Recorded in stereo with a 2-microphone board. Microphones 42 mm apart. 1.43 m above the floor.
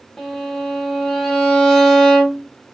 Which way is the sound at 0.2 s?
Centre (ahead or behind).